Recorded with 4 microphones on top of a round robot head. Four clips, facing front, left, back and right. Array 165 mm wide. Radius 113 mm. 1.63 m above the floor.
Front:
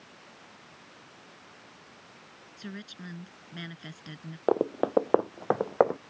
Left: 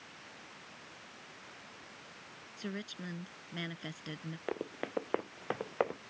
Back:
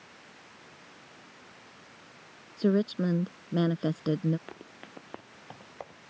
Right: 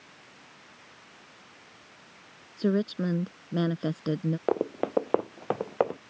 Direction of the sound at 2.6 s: 140° right.